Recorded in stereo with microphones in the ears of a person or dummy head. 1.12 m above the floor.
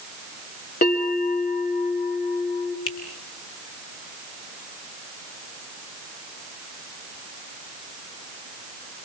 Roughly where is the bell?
Left.